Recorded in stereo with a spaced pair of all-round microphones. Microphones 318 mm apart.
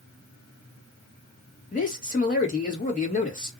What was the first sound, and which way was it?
A man speaking, 25° left (ahead or behind).